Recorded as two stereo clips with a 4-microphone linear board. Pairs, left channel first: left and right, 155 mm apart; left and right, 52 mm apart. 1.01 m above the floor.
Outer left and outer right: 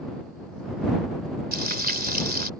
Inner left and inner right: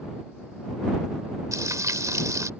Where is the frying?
85° right.